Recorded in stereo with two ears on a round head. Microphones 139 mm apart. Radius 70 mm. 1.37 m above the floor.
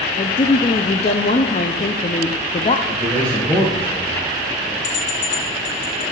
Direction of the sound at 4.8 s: 50° left (ahead or behind).